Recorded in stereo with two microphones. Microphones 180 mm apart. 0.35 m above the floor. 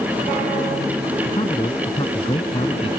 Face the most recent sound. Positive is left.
turn(degrees=30)  # may be behind; listen again after turning